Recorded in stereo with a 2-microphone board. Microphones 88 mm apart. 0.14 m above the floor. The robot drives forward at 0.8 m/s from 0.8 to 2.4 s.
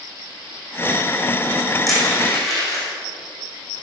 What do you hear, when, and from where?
1.9 s crushing: centre (ahead or behind), 4 m